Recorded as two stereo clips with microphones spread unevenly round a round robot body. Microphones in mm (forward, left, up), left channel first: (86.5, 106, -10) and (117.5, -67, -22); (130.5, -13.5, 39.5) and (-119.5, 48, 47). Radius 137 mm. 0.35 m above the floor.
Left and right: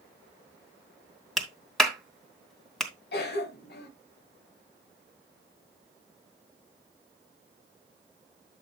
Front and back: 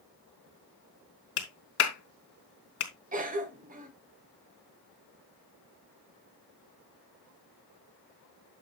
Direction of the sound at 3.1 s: 115° left.